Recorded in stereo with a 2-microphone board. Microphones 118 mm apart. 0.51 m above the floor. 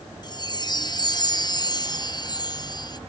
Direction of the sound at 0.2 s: 35° left (ahead or behind).